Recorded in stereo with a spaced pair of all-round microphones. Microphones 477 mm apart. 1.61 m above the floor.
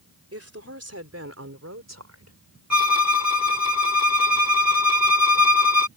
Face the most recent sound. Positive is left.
turn(degrees=35)  # may be behind; listen again after turning